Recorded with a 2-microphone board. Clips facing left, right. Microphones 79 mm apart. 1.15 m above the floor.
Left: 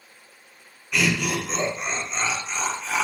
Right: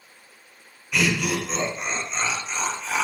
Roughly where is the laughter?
Centre.